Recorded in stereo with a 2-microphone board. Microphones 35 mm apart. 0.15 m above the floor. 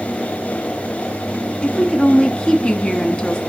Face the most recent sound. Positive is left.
turn(degrees=30)  # may be behind; listen again after turning